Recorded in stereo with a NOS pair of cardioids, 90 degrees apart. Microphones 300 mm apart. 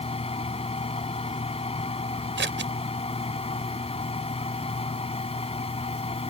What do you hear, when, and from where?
0.0 s a fan: 20° left
2.4 s scissors: 40° right